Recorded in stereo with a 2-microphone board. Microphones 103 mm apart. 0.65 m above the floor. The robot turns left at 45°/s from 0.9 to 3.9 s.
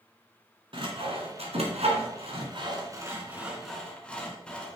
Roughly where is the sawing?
Right.